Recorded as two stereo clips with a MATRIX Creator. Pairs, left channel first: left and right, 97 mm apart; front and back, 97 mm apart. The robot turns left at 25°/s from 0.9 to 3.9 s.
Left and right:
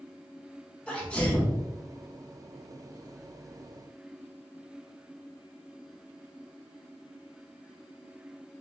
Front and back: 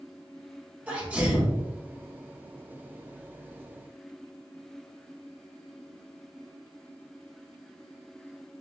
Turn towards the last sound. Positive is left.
turn(degrees=75)